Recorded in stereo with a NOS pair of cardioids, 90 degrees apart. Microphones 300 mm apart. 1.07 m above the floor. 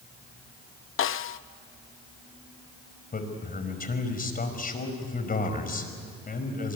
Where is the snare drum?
45° left, 0.7 m.